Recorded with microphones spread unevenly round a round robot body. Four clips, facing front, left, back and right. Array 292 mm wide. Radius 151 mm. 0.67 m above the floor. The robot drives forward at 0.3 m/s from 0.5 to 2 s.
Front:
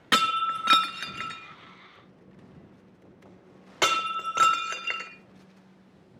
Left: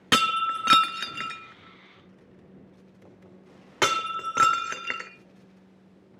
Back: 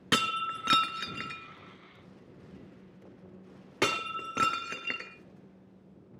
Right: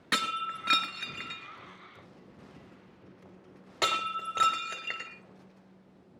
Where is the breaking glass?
95° left, 0.8 m; by 5.1 s 130° left, 0.9 m.